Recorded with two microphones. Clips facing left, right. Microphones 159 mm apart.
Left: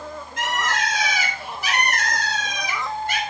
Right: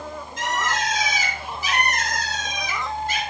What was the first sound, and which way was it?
A bird, 65° left (ahead or behind).